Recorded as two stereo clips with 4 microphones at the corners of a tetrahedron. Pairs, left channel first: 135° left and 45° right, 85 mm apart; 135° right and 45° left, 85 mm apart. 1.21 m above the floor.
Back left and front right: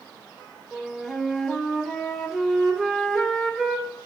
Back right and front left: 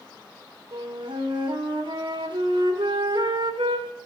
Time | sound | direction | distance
0.7 | a flute | 50° left | 1.2 m